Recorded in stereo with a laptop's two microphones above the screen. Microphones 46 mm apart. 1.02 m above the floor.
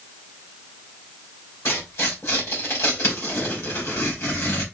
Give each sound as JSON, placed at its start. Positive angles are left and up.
{"t": 1.6, "sound": "tearing paper", "side_deg": 75, "distance_m": 2.5}